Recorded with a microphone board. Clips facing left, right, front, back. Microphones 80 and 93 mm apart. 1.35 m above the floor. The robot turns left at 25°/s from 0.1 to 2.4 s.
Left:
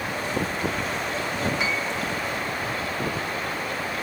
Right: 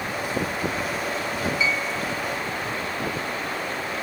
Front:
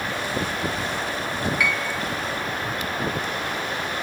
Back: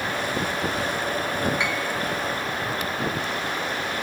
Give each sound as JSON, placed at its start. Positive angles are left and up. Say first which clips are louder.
{"t": 1.6, "sound": "a piano", "louder": "right 1 dB, front 1 dB", "azimuth_deg": 115, "distance_m": 1.7}